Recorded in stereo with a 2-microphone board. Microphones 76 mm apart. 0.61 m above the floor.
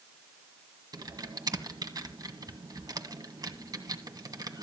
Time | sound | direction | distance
0.9 | typing on a keyboard | 55° right (ahead or behind) | 1.6 m